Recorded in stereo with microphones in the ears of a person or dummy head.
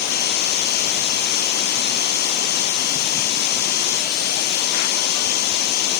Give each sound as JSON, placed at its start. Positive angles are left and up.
{"t": 0.0, "sound": "a machine running", "side_deg": 55}